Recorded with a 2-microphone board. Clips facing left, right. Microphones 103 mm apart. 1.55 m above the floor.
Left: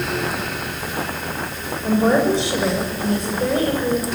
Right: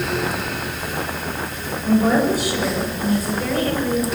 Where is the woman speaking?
25° left (ahead or behind), 7.5 m.